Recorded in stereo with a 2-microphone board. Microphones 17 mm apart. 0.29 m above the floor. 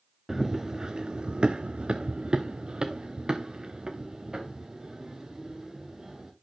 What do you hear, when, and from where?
0.3 s running footsteps: 25° right (ahead or behind), 1.0 m; by 6.3 s 40° right (ahead or behind), 3.5 m